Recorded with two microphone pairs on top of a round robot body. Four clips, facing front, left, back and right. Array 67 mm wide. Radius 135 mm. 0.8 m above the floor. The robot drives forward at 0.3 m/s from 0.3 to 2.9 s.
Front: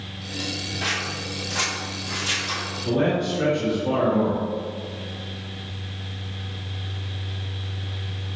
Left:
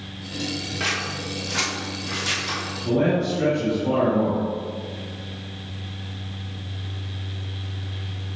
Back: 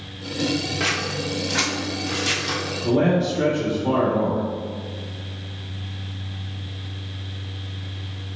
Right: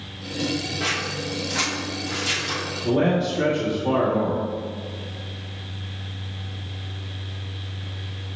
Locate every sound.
0.8 s scissors: 155° left, 1.7 m; by 2.6 s 165° left, 2 m
2.9 s a man speaking: 150° right, 2.5 m